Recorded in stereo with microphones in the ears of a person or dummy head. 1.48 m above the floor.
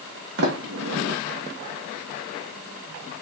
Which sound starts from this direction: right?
A sliding door, at 0.4 s.